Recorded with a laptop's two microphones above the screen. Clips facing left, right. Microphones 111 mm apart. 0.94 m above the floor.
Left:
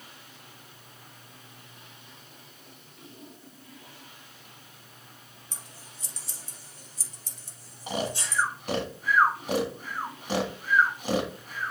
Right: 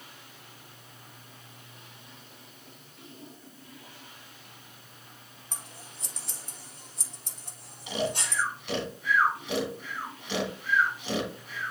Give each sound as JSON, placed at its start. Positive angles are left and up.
{"t": 5.5, "sound": "scissors", "side_deg": -60, "distance_m": 1.6}
{"t": 7.9, "sound": "snoring", "side_deg": 45, "distance_m": 1.6}